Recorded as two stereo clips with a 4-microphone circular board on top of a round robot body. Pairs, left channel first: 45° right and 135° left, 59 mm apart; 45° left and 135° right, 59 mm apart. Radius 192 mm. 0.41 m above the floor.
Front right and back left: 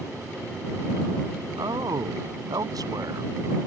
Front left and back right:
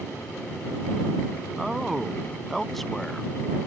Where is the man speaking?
140° left; by 3.3 s 130° left.